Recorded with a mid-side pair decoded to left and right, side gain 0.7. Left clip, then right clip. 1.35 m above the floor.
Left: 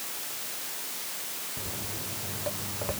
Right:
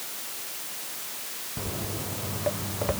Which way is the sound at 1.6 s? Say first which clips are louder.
Right 6 dB; 30° right.